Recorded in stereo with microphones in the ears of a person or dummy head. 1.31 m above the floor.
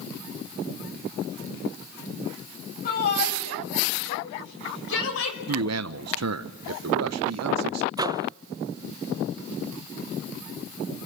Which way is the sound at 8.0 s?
20° right (ahead or behind).